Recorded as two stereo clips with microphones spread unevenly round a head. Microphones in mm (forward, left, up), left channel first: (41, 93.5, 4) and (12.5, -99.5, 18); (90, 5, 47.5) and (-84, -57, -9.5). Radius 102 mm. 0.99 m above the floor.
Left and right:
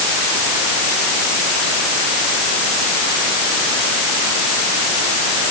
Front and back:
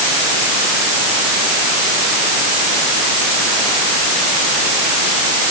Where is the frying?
I don't hear frying.